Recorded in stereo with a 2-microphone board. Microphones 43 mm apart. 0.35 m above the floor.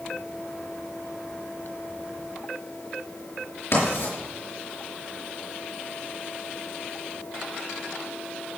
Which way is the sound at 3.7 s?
80° left.